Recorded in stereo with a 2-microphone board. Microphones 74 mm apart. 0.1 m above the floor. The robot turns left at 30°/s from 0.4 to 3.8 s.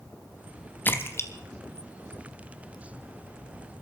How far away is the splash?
About 1.2 m.